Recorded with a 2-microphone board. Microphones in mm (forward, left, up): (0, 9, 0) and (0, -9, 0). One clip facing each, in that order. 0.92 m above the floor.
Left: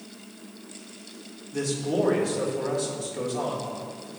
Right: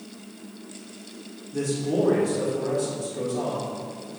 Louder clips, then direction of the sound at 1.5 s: Right 1 dB; 25° left (ahead or behind).